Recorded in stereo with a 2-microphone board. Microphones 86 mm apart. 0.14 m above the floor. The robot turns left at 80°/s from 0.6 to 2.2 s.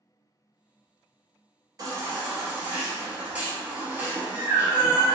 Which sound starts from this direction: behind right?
A baby crying, at 1.8 s.